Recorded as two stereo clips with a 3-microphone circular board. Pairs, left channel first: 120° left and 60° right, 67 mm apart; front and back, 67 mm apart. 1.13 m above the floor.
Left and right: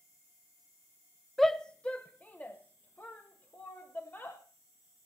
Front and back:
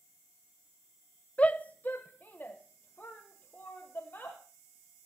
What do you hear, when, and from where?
1.4 s a shout: 35° left, 0.6 m; by 4.4 s 60° left, 2.5 m